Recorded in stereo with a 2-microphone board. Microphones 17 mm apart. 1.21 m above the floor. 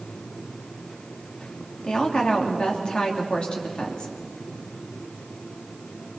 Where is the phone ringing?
I don't hear a phone ringing.